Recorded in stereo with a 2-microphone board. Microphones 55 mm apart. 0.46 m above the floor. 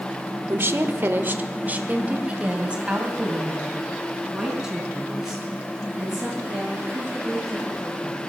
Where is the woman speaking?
45° right (ahead or behind), 1.3 m; by 8.2 s 5° right (ahead or behind), 9 m.